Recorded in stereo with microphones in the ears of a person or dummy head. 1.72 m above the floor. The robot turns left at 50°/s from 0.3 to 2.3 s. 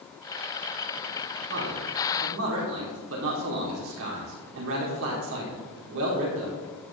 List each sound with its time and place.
1.5 s a man speaking: 55° right (ahead or behind), 4.5 m; by 6.6 s 85° right, 4.5 m